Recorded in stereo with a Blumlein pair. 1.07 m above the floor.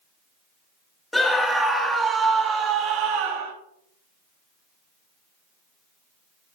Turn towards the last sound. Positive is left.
turn(degrees=-50)